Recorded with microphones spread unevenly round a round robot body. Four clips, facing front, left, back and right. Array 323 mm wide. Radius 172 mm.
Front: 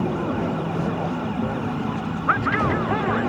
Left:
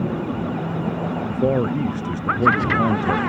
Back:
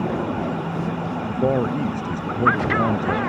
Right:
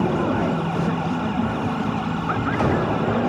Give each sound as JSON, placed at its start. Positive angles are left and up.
{"t": 1.3, "sound": "a man speaking", "azimuth_deg": 125}